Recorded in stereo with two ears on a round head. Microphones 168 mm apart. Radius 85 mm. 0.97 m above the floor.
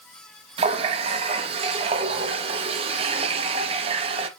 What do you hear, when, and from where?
0.6 s a running tap: 30° right (ahead or behind), 0.6 m